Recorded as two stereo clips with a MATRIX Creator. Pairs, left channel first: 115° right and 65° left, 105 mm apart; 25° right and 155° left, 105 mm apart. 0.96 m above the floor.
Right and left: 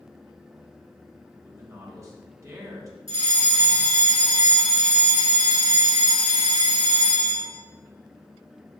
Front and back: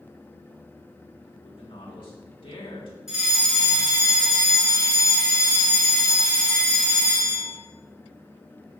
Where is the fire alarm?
75° left, 2.5 m.